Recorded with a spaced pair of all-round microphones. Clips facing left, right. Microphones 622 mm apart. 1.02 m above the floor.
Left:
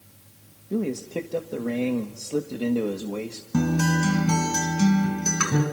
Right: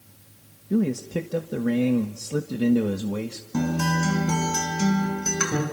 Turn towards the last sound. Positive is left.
turn(degrees=35)  # may be behind; listen again after turning